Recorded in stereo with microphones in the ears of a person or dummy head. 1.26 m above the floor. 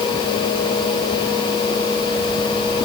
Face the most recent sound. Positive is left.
No sound to turn to.